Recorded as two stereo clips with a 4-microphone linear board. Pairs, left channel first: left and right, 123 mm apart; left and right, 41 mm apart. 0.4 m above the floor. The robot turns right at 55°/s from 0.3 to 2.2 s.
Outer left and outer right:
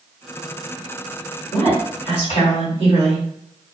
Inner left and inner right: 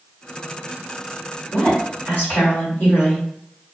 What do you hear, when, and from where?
1.5 s a woman speaking: 35° left, 2.0 m; by 3.2 s 70° left, 2.0 m